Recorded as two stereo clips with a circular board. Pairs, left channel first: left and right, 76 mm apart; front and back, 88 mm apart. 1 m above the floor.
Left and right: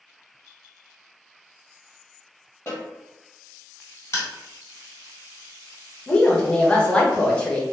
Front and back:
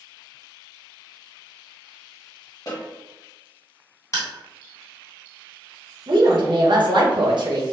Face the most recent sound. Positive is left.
turn(degrees=165)